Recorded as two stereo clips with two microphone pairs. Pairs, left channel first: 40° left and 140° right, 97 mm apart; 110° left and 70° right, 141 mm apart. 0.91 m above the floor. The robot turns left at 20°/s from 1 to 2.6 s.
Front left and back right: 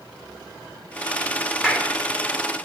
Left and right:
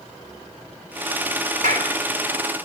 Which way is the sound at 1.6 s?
55° right.